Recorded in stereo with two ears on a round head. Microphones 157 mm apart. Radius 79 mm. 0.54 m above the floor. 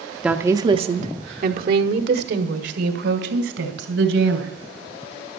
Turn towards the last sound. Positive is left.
turn(degrees=-75)  # may be behind; listen again after turning